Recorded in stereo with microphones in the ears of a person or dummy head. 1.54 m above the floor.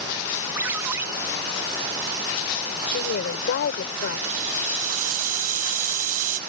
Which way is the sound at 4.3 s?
50° right (ahead or behind).